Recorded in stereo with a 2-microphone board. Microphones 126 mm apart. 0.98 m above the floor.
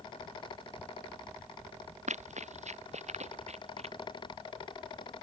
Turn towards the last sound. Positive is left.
turn(degrees=-60)  # may be behind; listen again after turning